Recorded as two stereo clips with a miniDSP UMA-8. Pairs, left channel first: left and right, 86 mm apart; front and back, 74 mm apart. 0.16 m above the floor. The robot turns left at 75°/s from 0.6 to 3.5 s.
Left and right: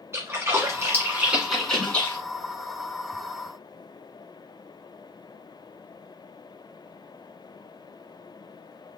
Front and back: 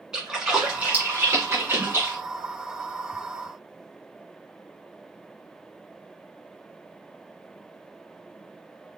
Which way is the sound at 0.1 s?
105° right.